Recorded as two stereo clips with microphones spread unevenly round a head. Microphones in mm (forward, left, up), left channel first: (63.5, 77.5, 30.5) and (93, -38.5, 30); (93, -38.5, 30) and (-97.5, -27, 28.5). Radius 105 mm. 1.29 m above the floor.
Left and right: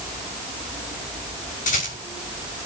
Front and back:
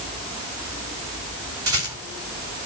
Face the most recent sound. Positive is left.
turn(degrees=105)